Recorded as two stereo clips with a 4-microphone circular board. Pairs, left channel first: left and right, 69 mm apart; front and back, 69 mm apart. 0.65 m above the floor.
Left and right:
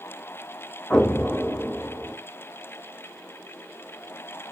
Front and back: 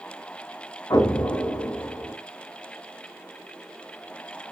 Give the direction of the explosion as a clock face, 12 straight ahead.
12 o'clock.